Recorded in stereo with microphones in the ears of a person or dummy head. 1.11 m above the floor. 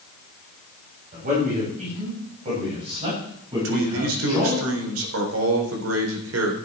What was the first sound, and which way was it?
A man speaking, 45° right (ahead or behind).